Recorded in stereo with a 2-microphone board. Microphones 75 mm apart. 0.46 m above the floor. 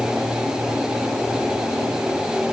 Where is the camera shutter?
No camera shutter in this recording.